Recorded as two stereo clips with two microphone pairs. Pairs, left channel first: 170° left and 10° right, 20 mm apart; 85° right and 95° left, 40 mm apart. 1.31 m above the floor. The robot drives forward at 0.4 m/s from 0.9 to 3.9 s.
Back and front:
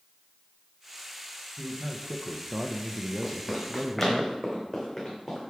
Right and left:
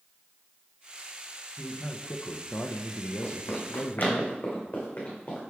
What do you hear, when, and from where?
1.6 s a man speaking: 35° right, 1.0 m; by 4.2 s 105° right, 0.5 m
3.2 s running footsteps: 110° right, 4 m; by 5.4 s 130° right, 4.5 m